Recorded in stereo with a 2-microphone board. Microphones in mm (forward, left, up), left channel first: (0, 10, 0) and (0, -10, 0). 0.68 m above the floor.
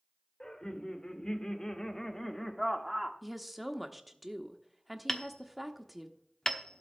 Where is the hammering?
20° left (ahead or behind), 1.0 m.